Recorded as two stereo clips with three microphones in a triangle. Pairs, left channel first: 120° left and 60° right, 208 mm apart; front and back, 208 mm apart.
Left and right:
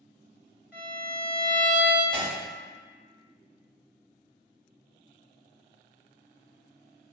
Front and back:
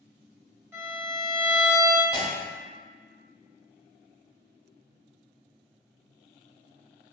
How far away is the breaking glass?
About 1.3 m.